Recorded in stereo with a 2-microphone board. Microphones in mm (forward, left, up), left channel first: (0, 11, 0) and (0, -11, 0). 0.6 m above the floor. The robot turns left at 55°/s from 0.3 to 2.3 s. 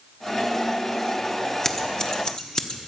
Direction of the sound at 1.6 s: 20° left (ahead or behind).